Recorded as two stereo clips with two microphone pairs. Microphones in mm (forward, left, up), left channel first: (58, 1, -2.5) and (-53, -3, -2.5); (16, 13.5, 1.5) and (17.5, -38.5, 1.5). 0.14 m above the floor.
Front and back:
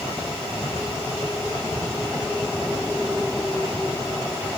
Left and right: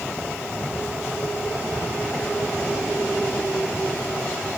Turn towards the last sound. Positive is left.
No sound to turn to.